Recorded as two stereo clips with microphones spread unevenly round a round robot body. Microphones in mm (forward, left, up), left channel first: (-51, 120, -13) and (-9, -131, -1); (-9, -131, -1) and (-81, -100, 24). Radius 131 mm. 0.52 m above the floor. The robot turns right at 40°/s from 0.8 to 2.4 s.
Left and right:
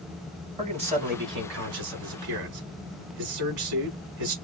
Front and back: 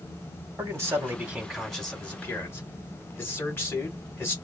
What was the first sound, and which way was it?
A man speaking, 145° right.